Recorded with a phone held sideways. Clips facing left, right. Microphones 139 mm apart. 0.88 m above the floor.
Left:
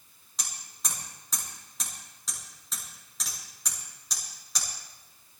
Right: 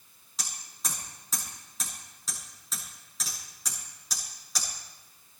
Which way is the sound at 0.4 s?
Centre (ahead or behind).